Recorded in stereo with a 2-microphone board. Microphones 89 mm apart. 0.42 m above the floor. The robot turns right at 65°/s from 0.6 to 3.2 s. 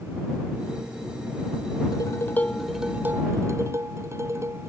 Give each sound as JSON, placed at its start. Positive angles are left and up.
{"t": 1.9, "sound": "dishes clattering", "azimuth_deg": 130}